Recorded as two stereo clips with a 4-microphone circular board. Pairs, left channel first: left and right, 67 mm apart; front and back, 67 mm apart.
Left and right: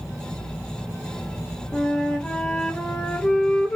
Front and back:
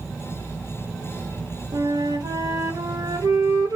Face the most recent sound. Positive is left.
turn(degrees=170)